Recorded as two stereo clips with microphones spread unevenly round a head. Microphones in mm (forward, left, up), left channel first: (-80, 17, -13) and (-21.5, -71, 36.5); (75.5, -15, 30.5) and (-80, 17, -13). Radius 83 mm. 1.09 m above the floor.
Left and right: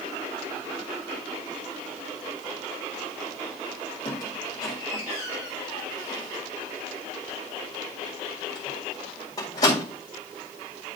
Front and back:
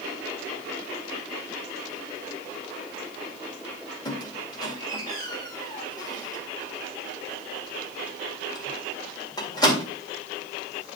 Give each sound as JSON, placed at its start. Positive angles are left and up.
{"t": 4.0, "sound": "a squeak", "azimuth_deg": 50, "distance_m": 1.8}